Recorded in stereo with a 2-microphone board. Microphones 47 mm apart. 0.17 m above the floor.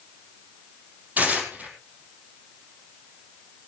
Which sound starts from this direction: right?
Tearing paper, at 1.2 s.